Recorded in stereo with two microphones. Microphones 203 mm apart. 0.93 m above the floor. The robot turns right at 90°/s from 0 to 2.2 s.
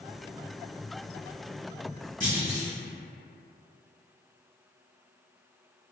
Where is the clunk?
45° right (ahead or behind), 1.7 m.